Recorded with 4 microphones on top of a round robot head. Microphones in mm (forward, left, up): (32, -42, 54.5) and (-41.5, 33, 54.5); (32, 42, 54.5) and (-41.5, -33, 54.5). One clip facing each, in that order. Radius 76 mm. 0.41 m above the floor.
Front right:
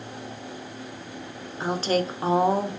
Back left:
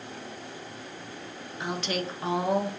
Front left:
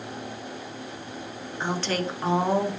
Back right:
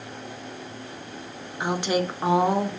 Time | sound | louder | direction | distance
1.6 | a woman speaking | front right 7 dB, back right 3 dB | 70° right | 1.6 m